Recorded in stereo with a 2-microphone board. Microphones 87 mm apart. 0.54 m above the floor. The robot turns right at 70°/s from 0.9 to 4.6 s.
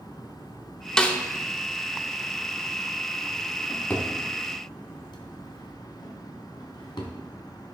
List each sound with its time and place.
1.0 s a snare drum: 10° left (ahead or behind), 0.6 m; by 1.2 s 20° left (ahead or behind), 0.6 m
3.7 s a drawer: centre (ahead or behind), 1.3 m; by 7.1 s 65° left (ahead or behind), 1.3 m